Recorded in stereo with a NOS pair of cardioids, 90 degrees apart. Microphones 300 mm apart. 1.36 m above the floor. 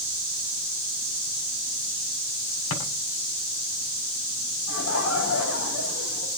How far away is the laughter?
About 6 m.